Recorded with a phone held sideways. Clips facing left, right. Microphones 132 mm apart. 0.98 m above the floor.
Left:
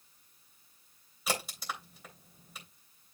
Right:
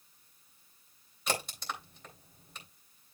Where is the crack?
5° left (ahead or behind), 3 m.